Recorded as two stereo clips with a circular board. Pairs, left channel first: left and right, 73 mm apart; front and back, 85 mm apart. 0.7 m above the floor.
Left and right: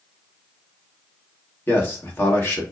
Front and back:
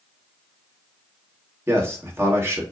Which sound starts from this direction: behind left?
A man speaking, at 1.7 s.